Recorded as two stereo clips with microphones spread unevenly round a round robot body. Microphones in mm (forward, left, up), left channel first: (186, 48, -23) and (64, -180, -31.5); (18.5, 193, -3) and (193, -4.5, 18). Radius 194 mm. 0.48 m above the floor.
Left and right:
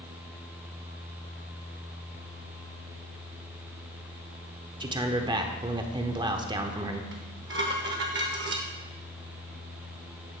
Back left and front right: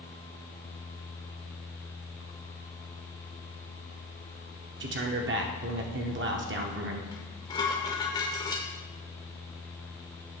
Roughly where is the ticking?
No ticking in this recording.